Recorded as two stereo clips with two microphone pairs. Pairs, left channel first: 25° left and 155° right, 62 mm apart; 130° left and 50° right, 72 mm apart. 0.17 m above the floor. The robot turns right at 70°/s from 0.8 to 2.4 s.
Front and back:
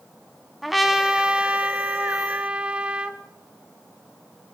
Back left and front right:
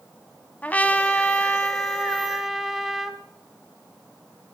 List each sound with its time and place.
0.6 s a trumpet: 120° left, 1.5 m; by 3.2 s 130° right, 1.5 m